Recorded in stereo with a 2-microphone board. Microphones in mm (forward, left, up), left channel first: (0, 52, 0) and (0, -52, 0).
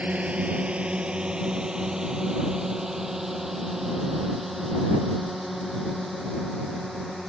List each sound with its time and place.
0.0 s a drone: 15° right (ahead or behind); by 7.3 s centre (ahead or behind)